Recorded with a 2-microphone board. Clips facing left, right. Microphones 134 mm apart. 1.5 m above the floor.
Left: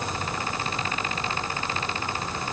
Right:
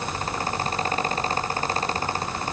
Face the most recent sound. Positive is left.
No sound to turn to.